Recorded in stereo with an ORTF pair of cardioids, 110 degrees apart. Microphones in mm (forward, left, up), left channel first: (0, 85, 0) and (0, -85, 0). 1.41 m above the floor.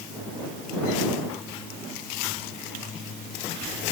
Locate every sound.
Only background noise.